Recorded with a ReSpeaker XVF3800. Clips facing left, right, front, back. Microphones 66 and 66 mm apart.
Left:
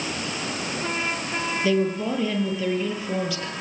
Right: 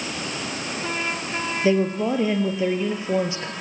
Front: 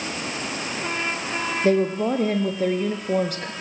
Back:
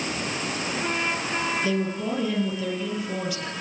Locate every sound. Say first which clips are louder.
1.6 s a woman speaking: right 3 dB, front 6 dB; 30° right, 3 m